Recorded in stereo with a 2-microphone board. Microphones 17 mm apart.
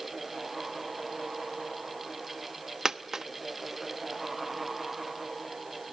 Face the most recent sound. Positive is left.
turn(degrees=-30)  # may be behind; listen again after turning